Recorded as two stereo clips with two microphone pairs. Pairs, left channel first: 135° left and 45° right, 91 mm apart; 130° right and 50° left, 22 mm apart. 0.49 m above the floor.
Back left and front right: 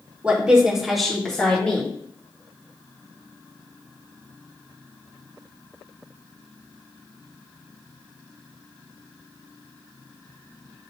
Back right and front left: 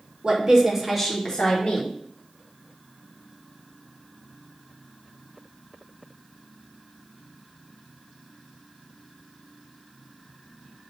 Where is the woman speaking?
30° left, 1.0 m; by 2.0 s 150° right, 1.1 m.